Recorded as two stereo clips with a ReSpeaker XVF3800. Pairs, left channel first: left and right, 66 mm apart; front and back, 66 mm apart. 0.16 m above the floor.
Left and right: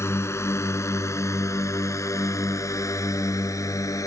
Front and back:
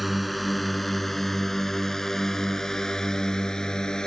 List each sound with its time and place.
0.0 s a drone: 90° left; by 4.1 s 75° left